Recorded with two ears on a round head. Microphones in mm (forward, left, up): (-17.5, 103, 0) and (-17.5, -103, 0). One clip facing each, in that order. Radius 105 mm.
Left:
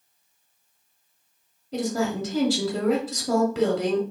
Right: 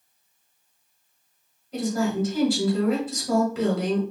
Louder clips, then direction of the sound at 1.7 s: Right 1 dB; 60° left (ahead or behind).